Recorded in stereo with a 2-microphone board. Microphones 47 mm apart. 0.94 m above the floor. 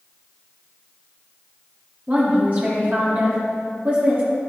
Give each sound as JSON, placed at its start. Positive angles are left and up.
{"t": 2.1, "sound": "a woman speaking", "side_deg": -40, "distance_m": 1.9}